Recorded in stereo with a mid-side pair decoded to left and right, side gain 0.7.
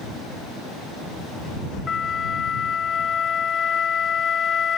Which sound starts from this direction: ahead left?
A flute, at 1.9 s.